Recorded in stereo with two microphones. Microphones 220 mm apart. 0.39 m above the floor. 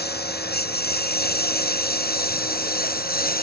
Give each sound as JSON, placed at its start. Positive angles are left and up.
{"t": 0.0, "sound": "a lawn mower", "side_deg": 50}